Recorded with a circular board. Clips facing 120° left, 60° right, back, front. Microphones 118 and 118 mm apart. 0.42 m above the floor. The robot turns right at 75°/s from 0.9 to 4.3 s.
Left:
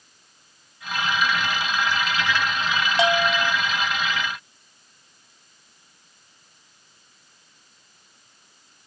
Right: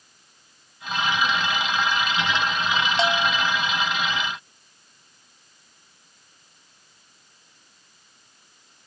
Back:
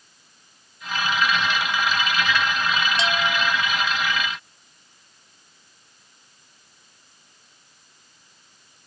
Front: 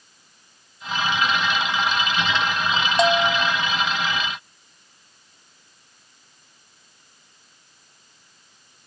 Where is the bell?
40° left; by 3.5 s 80° left.